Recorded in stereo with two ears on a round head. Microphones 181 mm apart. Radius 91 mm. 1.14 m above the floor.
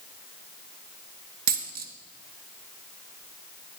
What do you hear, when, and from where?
1.5 s a dropped coin: 45° right (ahead or behind), 1.7 m